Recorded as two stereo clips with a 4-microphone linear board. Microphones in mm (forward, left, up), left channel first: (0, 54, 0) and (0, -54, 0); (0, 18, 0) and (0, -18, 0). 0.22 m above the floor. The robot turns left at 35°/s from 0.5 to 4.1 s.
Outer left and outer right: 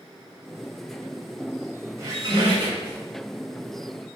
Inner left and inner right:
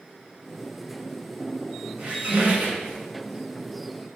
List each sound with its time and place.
2.0 s a squeak: 35° right, 1.1 m; by 3.0 s 70° right, 1.1 m